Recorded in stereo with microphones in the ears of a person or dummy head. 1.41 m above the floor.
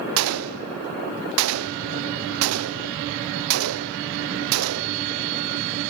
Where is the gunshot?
80° right, 0.6 m.